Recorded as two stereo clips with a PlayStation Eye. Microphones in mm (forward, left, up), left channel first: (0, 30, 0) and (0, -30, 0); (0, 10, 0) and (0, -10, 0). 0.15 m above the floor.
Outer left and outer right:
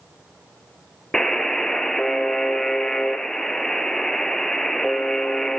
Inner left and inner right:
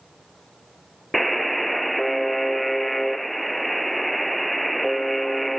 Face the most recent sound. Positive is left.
turn(degrees=5)  # may be behind; listen again after turning